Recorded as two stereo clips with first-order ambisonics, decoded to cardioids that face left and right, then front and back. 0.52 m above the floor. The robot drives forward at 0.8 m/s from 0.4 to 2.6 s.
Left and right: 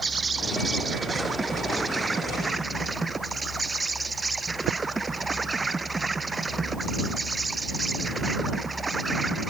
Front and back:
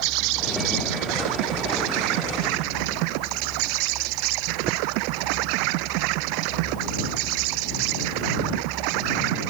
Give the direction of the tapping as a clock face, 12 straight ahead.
4 o'clock.